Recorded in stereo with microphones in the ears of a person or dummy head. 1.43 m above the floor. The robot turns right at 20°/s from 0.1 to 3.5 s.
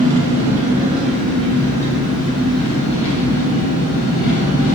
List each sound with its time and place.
0.0 s an engine running: 25° right, 1.0 m; by 4.8 s 45° left, 1.0 m